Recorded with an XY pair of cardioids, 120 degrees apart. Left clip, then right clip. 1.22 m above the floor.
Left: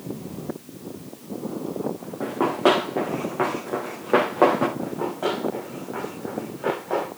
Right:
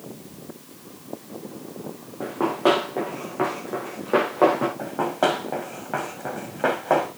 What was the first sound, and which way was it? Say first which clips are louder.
Running footsteps: left 1 dB; 15° left.